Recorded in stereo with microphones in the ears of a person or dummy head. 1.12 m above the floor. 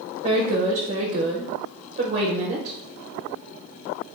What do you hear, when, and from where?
0.2 s a woman speaking: 35° right (ahead or behind), 0.8 m